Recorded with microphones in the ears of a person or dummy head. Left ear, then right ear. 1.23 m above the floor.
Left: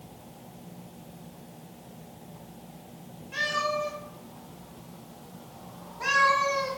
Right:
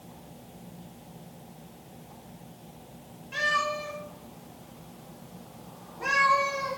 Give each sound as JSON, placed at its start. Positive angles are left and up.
{"t": 3.3, "sound": "a cat meowing", "side_deg": -10, "distance_m": 1.5}